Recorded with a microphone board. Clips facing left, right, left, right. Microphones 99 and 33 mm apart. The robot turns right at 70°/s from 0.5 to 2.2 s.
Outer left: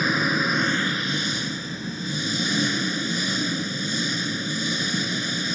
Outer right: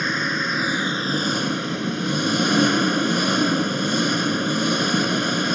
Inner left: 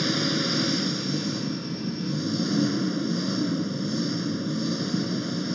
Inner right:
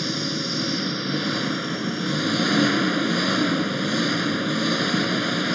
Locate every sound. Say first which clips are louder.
0.0 s an engine running: outer left 1 dB, inner left 1 dB; 175° left; by 5.5 s 65° right